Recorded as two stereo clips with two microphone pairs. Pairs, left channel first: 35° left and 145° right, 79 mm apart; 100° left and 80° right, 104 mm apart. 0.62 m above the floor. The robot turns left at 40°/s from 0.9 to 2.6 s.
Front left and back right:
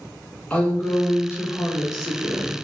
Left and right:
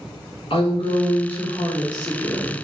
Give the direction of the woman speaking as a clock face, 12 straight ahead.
9 o'clock.